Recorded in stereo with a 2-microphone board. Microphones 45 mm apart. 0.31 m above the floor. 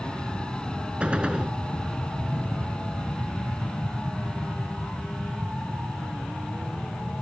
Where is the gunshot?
25° right (ahead or behind).